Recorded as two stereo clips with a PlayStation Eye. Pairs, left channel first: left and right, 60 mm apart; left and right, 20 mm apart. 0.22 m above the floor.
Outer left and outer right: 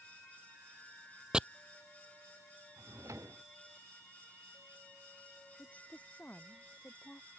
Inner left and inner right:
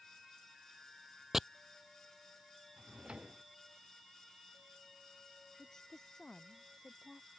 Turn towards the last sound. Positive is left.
turn(degrees=25)  # may be behind; listen again after turning